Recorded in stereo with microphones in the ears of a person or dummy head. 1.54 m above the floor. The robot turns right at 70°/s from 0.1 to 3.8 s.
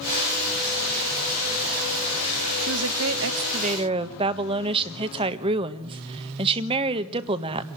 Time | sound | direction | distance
2.6 | a woman speaking | 110° right | 1.5 m